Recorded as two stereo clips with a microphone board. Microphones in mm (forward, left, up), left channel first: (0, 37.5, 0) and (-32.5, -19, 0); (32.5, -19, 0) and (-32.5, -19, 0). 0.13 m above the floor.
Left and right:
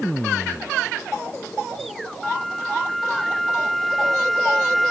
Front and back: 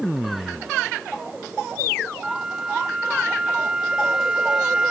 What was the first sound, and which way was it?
A flute, 140° left.